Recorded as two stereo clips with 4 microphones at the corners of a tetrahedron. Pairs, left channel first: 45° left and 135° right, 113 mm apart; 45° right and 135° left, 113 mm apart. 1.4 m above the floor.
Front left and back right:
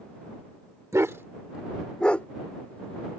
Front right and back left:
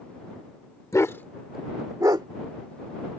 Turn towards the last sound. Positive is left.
turn(degrees=115)